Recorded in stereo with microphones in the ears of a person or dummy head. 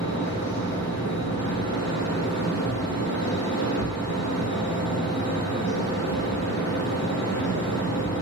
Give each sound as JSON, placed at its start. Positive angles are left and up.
{"t": 0.0, "sound": "a fan", "side_deg": 80, "distance_m": 1.1}